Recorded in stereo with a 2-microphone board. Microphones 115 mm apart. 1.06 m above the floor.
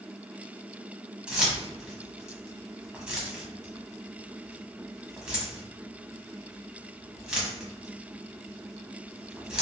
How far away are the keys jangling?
About 0.8 m.